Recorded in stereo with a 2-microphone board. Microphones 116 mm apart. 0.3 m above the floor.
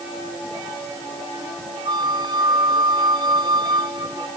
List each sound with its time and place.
1.9 s a flute: 40° right (ahead or behind)